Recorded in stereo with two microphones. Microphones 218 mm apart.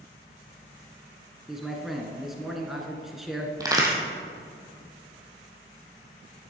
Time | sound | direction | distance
1.5 | a man speaking | centre (ahead or behind) | 1.3 m
3.6 | a crack | 15° right (ahead or behind) | 1.9 m